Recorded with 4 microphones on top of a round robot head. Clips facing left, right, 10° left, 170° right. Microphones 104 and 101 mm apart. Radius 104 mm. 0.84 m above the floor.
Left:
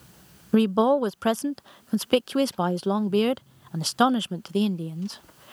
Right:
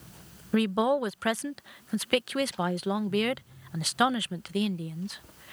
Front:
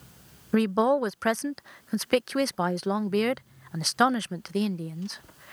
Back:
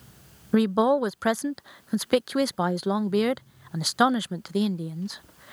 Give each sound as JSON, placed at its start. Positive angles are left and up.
{"t": 0.5, "sound": "a woman speaking", "azimuth_deg": 110}